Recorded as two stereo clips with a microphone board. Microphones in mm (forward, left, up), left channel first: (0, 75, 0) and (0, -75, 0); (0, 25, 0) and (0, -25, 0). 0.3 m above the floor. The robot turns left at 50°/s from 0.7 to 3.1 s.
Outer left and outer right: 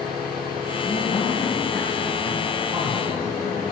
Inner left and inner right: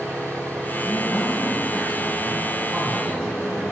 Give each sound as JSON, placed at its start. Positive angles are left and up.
{"t": 0.8, "sound": "a man speaking", "azimuth_deg": 55, "distance_m": 2.5}